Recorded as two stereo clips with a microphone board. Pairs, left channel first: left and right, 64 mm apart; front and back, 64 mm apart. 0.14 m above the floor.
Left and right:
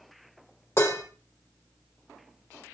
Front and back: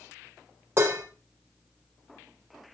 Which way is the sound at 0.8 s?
125° left.